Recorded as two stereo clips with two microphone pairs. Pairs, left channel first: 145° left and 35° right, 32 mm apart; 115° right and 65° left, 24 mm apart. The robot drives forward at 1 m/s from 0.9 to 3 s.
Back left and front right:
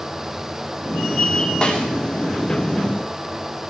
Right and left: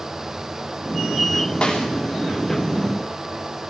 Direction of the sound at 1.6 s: 160° right.